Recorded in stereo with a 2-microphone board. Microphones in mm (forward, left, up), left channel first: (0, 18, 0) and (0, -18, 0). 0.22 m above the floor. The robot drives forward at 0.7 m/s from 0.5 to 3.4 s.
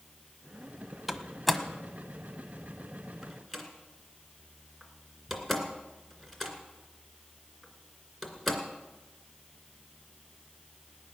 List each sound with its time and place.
1.1 s a door slam: centre (ahead or behind), 1.0 m